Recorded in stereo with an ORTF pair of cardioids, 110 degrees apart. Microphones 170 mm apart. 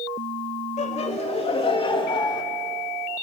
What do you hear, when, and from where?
0.8 s laughter: 40° left, 3 m; by 2.4 s 25° left, 2.5 m